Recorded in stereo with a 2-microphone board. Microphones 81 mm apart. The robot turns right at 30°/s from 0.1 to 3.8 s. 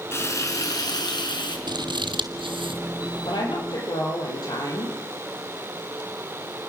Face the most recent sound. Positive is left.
turn(degrees=55)  # may be behind; listen again after turning